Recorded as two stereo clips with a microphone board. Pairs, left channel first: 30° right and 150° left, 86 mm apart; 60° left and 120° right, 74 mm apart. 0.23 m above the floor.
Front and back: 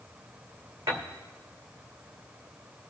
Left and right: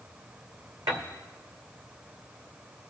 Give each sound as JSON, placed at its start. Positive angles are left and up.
{"t": 0.9, "sound": "a piano", "azimuth_deg": -155, "distance_m": 2.0}